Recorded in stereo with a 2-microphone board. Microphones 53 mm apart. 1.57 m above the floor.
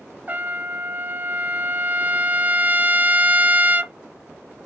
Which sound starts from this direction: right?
A trumpet, at 0.3 s.